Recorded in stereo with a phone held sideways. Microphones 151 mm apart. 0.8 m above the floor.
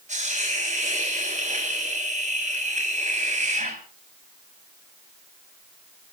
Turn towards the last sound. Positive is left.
turn(degrees=-55)  # may be behind; listen again after turning